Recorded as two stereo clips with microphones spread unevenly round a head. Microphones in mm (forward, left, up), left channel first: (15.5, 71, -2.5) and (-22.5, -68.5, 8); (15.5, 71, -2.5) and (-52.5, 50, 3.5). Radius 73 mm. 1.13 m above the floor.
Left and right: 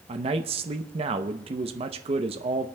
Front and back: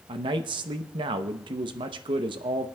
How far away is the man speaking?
About 0.7 m.